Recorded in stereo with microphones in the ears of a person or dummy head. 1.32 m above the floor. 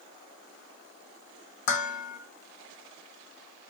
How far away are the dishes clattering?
About 1.2 m.